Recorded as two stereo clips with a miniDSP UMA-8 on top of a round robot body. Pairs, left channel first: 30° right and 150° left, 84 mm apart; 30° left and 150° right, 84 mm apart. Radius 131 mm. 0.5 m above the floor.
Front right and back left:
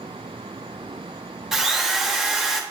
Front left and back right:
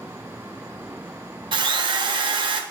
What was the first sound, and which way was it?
A drill, 125° right.